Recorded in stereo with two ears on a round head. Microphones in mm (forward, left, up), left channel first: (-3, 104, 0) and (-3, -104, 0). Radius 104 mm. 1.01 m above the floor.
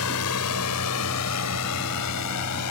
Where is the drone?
65° left (ahead or behind); by 2.7 s 80° left.